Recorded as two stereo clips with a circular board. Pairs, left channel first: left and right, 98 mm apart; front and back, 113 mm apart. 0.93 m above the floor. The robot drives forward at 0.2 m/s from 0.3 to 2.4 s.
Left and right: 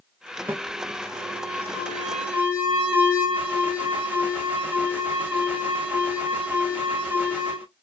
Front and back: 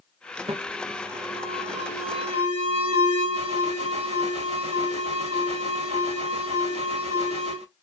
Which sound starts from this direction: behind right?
An alarm, at 0.5 s.